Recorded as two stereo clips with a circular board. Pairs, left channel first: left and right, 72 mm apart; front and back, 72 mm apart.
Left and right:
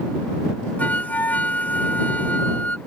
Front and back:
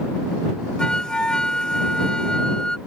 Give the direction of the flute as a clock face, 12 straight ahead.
10 o'clock.